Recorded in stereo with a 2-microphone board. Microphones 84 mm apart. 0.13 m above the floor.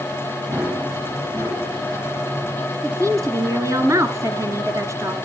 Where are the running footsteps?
30° right (ahead or behind), 9 m.